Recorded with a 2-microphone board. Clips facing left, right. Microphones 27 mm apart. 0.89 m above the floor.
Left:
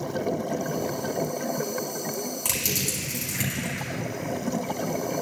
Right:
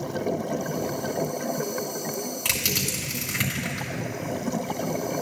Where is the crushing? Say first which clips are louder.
Right 3 dB; 30° right (ahead or behind), 3.5 m.